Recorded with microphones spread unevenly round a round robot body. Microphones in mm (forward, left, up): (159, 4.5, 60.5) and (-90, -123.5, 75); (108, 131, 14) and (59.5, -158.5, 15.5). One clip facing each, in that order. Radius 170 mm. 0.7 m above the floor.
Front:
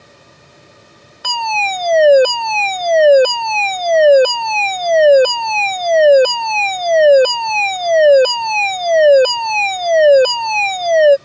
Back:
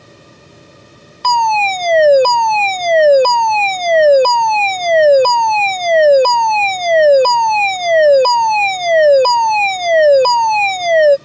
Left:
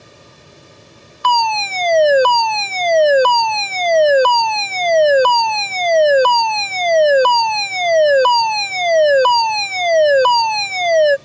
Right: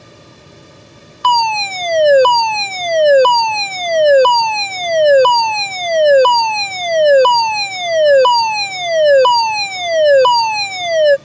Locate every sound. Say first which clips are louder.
1.2 s a fire alarm: back 6 dB, right 2 dB; 55° right